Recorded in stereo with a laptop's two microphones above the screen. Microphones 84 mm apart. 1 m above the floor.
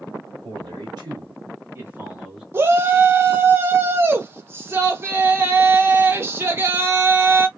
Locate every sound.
0.4 s a man speaking: 70° right (ahead or behind), 1.4 m; by 2.4 s 5° right (ahead or behind), 1.1 m
2.5 s a shout: 30° right (ahead or behind), 0.6 m